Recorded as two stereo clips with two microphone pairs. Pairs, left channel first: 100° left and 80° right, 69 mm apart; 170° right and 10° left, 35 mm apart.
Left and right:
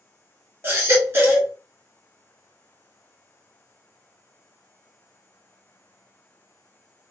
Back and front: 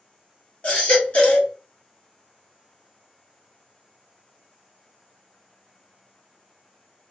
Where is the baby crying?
135° right, 1.3 m.